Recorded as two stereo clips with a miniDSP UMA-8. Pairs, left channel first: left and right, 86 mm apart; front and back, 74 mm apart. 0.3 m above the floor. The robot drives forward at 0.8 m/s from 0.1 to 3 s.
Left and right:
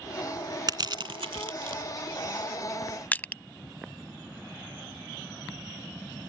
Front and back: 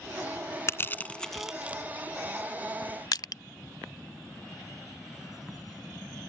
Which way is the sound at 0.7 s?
50° right.